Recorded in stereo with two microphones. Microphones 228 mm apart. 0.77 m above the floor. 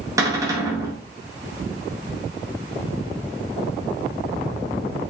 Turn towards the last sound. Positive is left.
turn(degrees=-15)  # may be behind; listen again after turning